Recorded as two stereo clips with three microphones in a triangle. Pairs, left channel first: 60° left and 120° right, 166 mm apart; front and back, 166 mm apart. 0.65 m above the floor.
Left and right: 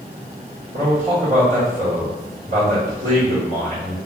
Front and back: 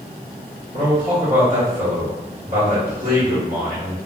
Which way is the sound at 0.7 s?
155° right.